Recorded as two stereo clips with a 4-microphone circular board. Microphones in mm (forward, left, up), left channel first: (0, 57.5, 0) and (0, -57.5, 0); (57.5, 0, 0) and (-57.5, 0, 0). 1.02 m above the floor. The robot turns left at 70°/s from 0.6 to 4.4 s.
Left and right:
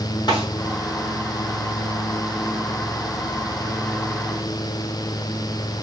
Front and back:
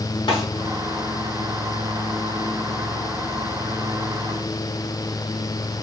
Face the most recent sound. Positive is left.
turn(degrees=140)